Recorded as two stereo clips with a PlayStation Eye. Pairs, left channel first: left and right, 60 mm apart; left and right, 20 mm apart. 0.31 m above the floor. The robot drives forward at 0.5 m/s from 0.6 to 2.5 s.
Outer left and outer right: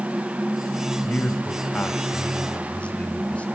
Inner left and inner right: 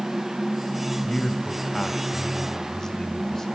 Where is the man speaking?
30° left (ahead or behind), 1.7 m; by 3.5 s 20° left (ahead or behind), 2 m.